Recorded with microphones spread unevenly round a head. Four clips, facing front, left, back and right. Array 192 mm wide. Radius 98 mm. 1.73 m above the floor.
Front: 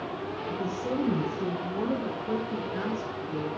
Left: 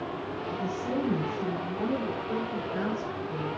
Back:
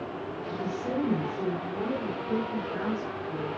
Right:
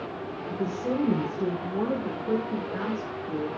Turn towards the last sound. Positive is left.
turn(degrees=-65)